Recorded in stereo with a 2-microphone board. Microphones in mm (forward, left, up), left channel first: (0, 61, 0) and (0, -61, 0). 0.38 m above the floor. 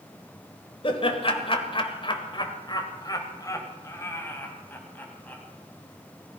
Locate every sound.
0.8 s laughter: 50° left (ahead or behind), 1.7 m; by 5.4 s 15° left (ahead or behind), 3 m